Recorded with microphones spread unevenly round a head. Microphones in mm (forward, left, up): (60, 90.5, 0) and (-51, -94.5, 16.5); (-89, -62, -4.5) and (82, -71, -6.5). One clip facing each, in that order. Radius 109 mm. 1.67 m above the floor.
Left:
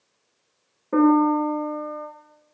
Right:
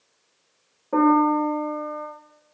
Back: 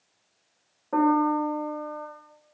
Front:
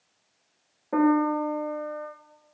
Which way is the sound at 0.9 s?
50° left.